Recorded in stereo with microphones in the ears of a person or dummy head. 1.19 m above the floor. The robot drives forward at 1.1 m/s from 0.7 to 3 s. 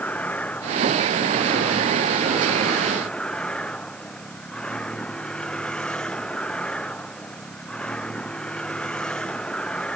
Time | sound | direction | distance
0.0 | a vehicle | 5° left (ahead or behind) | ?